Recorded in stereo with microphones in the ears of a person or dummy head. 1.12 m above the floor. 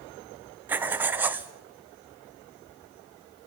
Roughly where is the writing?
Centre.